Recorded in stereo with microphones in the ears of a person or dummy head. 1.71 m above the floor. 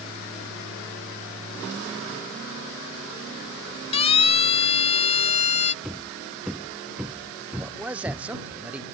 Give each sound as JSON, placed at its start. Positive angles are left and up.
{"t": 3.9, "sound": "a siren", "side_deg": 25}
{"t": 5.8, "sound": "hammering", "side_deg": -5}
{"t": 7.6, "sound": "a man speaking", "side_deg": -10}